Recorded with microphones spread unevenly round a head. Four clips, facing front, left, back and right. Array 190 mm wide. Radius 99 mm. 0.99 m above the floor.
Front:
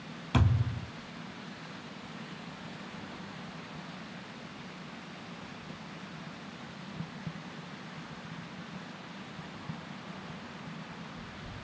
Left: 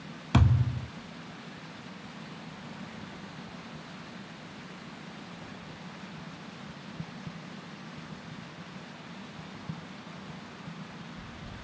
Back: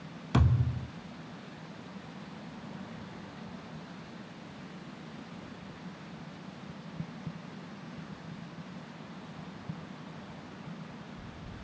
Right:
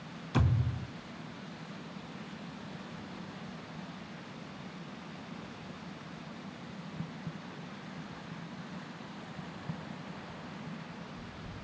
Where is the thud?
100° left, 1.7 m.